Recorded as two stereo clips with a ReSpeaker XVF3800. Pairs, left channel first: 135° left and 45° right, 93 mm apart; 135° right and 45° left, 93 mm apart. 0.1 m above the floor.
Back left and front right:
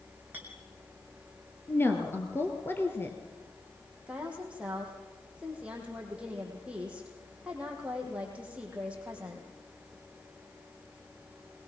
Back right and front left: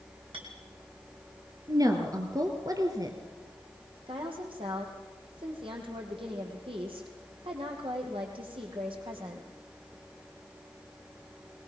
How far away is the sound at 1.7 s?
About 2 m.